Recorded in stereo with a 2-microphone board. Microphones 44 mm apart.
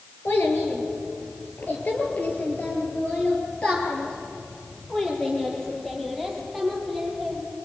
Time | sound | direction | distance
0.2 | a child speaking | 60° left (ahead or behind) | 5.5 m